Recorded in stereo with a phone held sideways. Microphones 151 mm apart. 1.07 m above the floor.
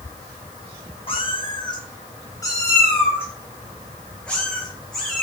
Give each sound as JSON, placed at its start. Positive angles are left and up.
{"t": 1.1, "sound": "a cat meowing", "side_deg": 35, "distance_m": 3.5}